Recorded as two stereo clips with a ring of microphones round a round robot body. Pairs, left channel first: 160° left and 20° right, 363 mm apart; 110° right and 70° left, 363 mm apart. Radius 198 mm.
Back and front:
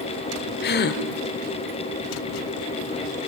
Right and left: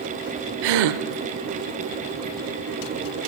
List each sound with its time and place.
0.6 s a gasp: 95° left, 0.8 m